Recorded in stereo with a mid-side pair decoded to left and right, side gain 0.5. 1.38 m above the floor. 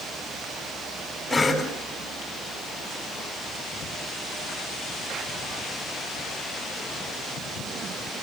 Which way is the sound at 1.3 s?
15° left.